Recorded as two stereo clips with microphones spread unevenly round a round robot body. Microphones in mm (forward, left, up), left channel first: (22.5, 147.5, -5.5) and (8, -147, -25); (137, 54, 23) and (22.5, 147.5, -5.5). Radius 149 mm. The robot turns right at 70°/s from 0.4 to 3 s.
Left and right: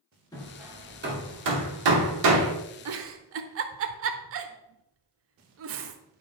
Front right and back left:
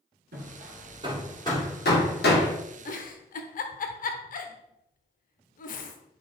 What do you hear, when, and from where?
0.3 s hammering: 165° left, 2 m; by 2.5 s 45° right, 2 m
2.9 s a giggle: 60° right, 1.0 m; by 6.0 s 50° right, 1.0 m